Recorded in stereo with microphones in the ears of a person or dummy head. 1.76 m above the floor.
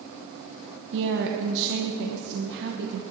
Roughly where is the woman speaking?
Right.